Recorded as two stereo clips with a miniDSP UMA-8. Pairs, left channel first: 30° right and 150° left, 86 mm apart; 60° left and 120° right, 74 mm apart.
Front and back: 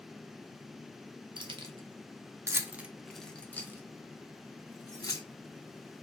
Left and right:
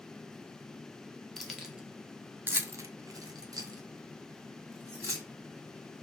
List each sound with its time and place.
1.4 s keys jangling: 150° left, 0.8 m; by 5.3 s 75° right, 1.4 m